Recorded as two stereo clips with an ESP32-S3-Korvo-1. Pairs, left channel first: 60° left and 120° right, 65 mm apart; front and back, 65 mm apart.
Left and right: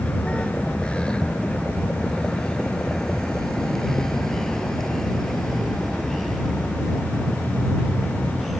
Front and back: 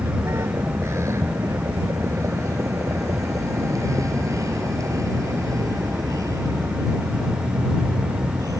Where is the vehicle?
130° left; by 8.6 s 150° left.